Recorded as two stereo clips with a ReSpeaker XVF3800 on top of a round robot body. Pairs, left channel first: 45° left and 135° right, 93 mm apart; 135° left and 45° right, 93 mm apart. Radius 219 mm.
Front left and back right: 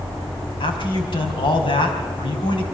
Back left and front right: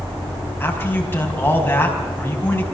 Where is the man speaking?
70° left, 4.5 m.